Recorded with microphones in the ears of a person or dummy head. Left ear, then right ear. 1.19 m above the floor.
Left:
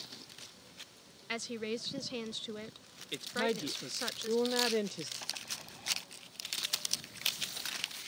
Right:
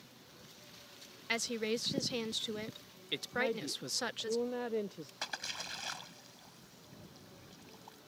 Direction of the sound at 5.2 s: 70° right (ahead or behind).